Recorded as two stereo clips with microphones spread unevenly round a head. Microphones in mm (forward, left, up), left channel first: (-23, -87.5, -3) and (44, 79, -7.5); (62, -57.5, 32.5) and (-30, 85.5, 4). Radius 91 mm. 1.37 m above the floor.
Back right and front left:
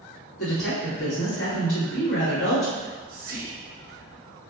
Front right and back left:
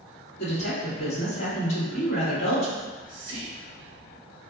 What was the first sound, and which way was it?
A woman speaking, 110° right.